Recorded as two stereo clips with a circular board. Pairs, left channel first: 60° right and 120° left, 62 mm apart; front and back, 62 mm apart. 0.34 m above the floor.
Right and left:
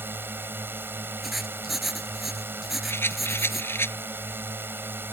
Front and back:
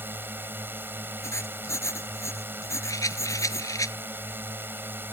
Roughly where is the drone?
Behind left.